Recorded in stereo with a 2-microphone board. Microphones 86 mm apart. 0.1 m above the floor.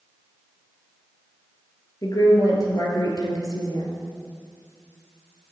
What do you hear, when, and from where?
2.0 s a woman speaking: 45° left (ahead or behind), 2 m